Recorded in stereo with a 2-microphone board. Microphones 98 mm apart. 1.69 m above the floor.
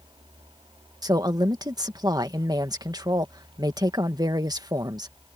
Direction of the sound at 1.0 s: 45° right (ahead or behind).